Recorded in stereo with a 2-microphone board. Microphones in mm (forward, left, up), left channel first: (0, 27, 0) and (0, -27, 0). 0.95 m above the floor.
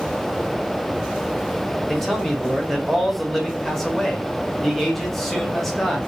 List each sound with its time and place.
1.9 s a man speaking: 5° left (ahead or behind), 0.8 m